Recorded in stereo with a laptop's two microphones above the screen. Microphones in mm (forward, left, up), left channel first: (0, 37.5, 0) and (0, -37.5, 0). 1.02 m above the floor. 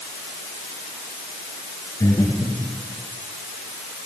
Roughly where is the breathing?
Left.